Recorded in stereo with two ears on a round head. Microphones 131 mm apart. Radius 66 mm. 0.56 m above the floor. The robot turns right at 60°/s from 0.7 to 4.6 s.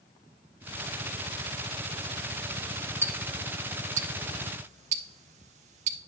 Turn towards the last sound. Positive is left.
turn(degrees=-45)  # may be behind; listen again after turning